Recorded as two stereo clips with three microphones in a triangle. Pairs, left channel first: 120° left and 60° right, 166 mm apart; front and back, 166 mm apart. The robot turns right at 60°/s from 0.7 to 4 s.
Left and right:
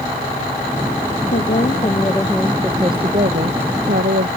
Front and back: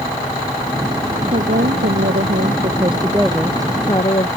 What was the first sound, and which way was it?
A woman speaking, 145° left.